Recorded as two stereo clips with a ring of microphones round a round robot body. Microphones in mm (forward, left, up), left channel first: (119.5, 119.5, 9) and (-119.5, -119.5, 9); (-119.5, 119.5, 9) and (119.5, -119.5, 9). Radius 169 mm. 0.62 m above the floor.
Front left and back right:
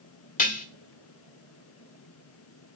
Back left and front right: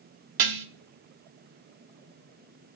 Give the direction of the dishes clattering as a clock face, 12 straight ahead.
1 o'clock.